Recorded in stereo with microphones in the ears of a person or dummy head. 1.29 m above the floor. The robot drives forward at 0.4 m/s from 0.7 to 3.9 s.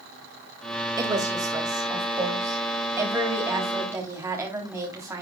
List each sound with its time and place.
1.0 s a woman speaking: 20° right (ahead or behind), 2.5 m; by 5.2 s 15° right (ahead or behind), 3.5 m